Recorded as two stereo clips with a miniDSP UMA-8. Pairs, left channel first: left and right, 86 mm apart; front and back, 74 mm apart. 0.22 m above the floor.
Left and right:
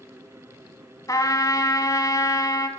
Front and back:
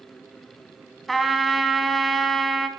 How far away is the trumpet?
About 1.1 m.